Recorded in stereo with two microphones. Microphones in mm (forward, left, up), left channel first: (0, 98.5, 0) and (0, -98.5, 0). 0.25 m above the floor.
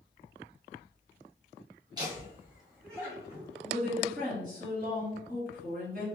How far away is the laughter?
About 1.3 m.